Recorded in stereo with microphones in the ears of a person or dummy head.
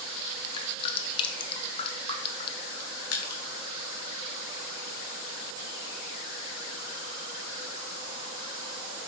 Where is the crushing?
70° left (ahead or behind), 1.4 m.